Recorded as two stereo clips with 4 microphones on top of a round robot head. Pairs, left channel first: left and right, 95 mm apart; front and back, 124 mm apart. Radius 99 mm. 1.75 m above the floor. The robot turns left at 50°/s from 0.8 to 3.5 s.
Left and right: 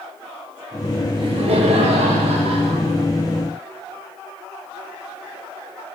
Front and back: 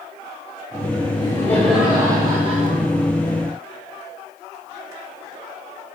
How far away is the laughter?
About 3 m.